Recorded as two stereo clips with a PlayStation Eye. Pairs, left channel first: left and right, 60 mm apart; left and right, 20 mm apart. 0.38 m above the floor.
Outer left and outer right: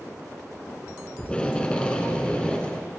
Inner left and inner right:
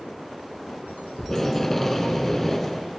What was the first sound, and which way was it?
Tape being pulled, 15° left (ahead or behind).